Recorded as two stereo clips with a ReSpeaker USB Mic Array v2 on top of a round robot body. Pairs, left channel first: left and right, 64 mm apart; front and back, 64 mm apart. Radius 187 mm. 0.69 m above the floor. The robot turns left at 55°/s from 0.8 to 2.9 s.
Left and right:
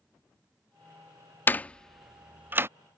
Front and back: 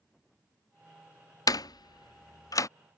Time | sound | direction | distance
1.5 | a door slam | 30° left | ?